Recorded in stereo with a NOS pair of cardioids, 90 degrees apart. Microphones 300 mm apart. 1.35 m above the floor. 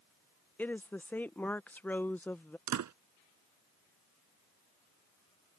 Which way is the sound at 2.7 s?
60° right.